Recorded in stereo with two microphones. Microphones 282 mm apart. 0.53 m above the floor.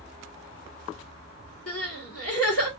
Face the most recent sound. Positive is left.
turn(degrees=55)  # may be behind; listen again after turning